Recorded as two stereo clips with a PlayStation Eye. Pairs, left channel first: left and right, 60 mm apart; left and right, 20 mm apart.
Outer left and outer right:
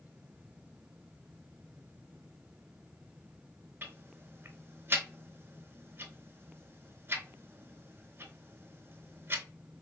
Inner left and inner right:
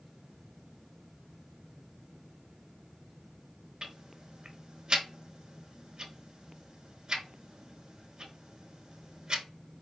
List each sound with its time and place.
3.8 s ticking: 35° right (ahead or behind), 0.7 m